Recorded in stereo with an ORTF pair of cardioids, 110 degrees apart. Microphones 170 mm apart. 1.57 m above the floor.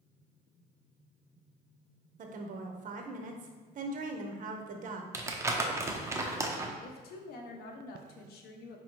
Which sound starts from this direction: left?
A woman speaking, at 6.8 s.